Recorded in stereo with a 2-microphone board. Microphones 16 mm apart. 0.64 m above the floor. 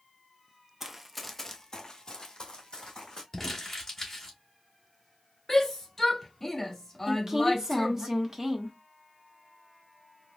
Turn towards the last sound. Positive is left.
turn(degrees=-25)  # may be behind; listen again after turning